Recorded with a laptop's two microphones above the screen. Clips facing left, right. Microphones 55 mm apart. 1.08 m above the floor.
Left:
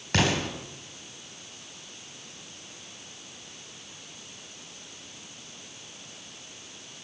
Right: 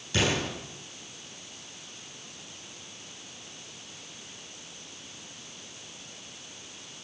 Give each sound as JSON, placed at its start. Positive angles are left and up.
{"t": 0.1, "sound": "an explosion", "side_deg": 65, "distance_m": 3.5}